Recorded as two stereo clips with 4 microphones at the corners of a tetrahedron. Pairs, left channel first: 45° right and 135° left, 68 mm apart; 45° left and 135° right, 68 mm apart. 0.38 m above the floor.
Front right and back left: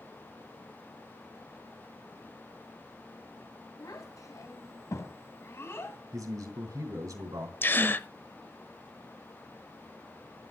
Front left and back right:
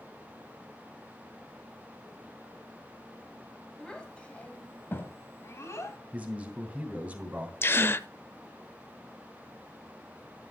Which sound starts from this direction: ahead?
A gasp, at 7.6 s.